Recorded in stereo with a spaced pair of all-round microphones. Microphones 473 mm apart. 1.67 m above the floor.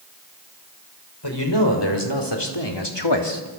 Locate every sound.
1.2 s a man speaking: 60° left (ahead or behind), 5.5 m